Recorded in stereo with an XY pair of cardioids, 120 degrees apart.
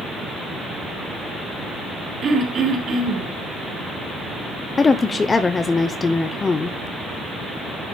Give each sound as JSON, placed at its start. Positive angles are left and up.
{"t": 2.2, "sound": "throat clearing", "azimuth_deg": -45, "distance_m": 3.0}
{"t": 4.8, "sound": "a woman speaking", "azimuth_deg": 25, "distance_m": 0.8}